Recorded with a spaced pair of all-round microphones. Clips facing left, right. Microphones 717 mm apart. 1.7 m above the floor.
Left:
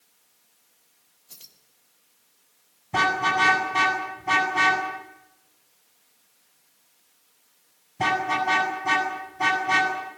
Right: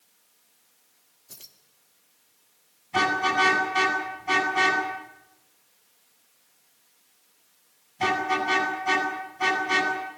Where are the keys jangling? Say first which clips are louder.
Right 4 dB; 70° right (ahead or behind), 2.5 m.